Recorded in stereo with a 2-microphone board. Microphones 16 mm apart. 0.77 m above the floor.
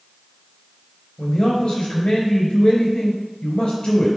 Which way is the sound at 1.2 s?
70° left (ahead or behind).